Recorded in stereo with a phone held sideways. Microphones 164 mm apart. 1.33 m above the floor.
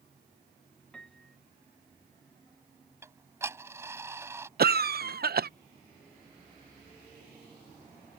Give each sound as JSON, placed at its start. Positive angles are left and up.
{"t": 0.9, "sound": "a piano", "side_deg": 5}
{"t": 3.0, "sound": "ticking", "side_deg": -15}
{"t": 4.6, "sound": "a cough", "side_deg": -70}